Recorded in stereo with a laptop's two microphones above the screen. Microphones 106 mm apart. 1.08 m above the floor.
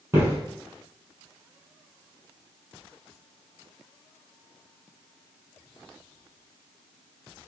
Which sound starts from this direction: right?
Footsteps, at 0.1 s.